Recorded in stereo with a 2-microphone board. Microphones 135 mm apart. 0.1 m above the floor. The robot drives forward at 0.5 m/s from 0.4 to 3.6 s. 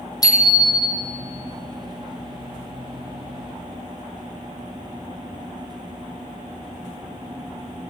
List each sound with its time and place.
0.2 s a bicycle bell: 25° left (ahead or behind), 3 m; by 1.0 s 30° left (ahead or behind), 2.5 m